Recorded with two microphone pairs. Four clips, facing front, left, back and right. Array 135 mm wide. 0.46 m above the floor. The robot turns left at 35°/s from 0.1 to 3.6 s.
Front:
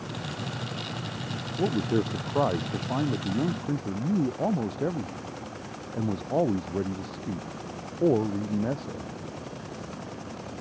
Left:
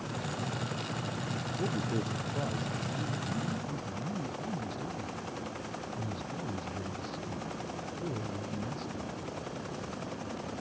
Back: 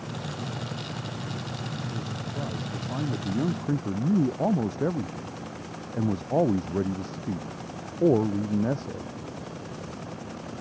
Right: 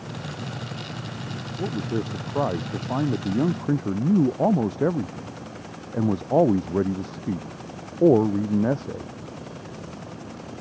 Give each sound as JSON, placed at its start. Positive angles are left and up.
{"t": 1.6, "sound": "a man speaking", "azimuth_deg": -20}